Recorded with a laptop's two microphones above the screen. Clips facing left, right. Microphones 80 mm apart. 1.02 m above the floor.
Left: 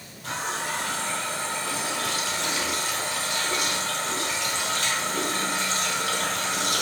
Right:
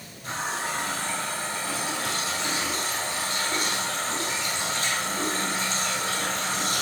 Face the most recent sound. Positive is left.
turn(degrees=85)